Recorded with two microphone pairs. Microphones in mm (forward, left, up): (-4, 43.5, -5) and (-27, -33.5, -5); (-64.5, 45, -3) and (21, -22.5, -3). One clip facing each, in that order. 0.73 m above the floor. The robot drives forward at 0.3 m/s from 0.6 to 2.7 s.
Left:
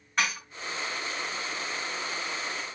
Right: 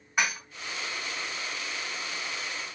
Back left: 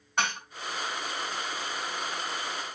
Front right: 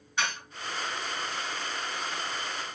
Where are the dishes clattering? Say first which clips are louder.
Right 1 dB, back left 2 dB; 175° left, 3.5 m.